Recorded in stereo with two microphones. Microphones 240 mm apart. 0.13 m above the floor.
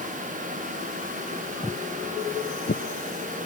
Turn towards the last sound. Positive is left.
turn(degrees=45)  # may be behind; listen again after turning